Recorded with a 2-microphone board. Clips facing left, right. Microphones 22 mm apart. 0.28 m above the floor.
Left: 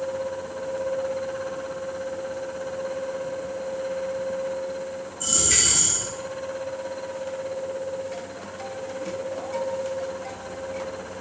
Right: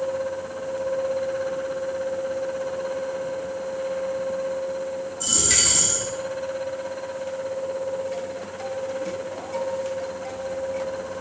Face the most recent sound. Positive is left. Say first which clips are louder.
# right 1 dB
turn(degrees=-40)  # may be behind; listen again after turning